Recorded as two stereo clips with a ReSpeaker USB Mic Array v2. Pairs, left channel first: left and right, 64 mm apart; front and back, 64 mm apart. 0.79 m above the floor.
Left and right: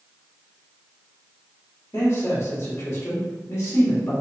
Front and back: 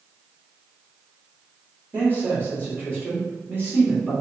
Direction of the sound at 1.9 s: 130° left.